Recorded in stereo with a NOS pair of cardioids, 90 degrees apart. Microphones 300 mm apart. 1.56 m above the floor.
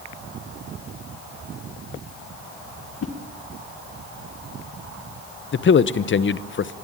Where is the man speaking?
40° left, 1.1 m.